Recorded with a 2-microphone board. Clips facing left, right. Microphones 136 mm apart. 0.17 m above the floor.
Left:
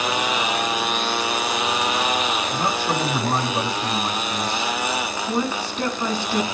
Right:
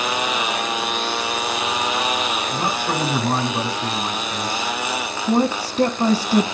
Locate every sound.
2.5 s a man speaking: 5° right (ahead or behind), 6 m
5.3 s a woman speaking: 35° right (ahead or behind), 1.2 m